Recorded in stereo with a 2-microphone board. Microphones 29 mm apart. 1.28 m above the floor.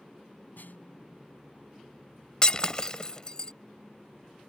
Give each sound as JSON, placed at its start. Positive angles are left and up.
{"t": 0.6, "sound": "a snare drum", "side_deg": 85}
{"t": 2.4, "sound": "breaking glass", "side_deg": 30}